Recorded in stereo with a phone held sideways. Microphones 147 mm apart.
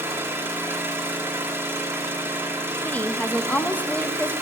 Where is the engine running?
15° right (ahead or behind), 1.0 m.